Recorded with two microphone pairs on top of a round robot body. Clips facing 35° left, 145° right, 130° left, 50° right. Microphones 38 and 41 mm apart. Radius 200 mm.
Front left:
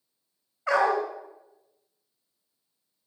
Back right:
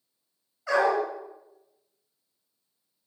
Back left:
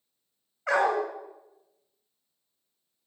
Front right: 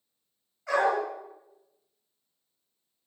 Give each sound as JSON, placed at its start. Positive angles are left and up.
{"t": 0.7, "sound": "a dog barking", "azimuth_deg": 75, "distance_m": 2.5}